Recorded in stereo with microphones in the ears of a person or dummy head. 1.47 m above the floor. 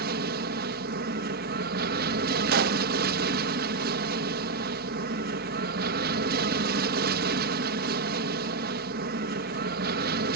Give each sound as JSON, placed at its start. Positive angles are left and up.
{"t": 0.0, "sound": "an aircraft", "side_deg": -50}
{"t": 2.5, "sound": "a pop", "side_deg": -50}